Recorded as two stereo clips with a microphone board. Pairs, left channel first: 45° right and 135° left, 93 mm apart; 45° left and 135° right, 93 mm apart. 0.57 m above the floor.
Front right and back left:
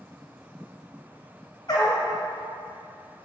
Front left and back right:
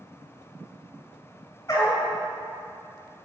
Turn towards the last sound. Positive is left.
turn(degrees=-10)